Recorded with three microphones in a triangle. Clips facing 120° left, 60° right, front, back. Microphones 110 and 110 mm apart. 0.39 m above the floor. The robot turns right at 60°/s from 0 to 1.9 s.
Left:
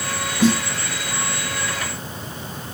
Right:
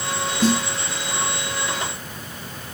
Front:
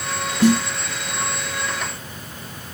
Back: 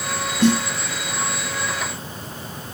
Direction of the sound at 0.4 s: 55° left.